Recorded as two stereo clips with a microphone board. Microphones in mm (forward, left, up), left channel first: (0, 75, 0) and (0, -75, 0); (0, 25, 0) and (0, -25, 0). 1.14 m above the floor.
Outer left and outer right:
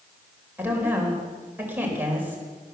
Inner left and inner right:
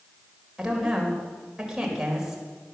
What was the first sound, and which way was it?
A woman speaking, 15° right (ahead or behind).